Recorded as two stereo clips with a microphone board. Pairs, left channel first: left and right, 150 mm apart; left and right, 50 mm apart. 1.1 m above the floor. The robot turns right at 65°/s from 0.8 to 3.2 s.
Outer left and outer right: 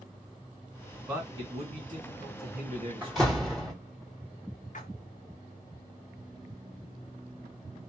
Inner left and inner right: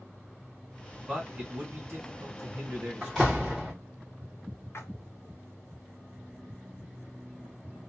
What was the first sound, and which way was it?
A man speaking, 15° right (ahead or behind).